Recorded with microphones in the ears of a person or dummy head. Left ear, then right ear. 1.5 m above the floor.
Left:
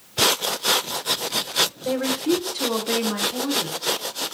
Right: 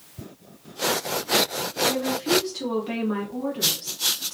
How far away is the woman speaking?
About 1.1 m.